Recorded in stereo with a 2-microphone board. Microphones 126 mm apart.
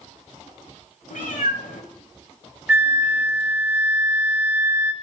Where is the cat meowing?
85° left, 1.5 m.